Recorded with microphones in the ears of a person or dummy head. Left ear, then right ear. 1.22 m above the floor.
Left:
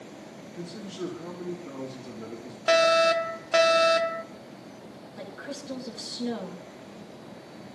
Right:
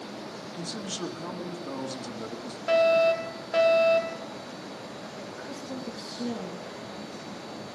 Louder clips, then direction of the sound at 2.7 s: Left 1 dB; 35° left (ahead or behind).